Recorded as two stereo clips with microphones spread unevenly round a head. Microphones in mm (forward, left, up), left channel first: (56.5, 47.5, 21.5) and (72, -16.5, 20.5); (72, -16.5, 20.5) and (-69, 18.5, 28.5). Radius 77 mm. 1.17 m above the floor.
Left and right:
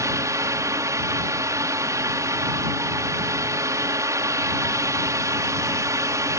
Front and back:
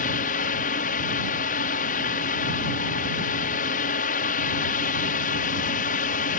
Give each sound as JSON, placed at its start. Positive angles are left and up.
{"t": 0.0, "sound": "a fan", "azimuth_deg": -40}